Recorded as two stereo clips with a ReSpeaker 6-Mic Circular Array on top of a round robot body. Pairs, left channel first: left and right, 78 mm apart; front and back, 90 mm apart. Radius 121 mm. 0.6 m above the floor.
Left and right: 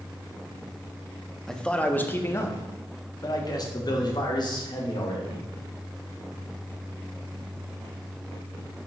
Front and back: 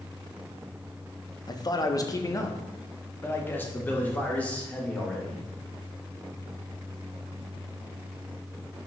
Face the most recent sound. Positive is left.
turn(degrees=75)